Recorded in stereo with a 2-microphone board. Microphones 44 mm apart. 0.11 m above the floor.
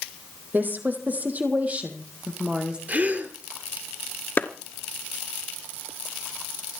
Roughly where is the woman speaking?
Right.